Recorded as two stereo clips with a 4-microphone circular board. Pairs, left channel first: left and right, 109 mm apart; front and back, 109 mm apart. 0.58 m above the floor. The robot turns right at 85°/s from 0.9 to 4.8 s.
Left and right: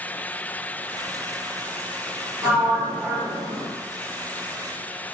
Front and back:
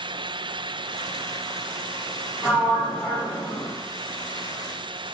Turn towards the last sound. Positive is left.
turn(degrees=70)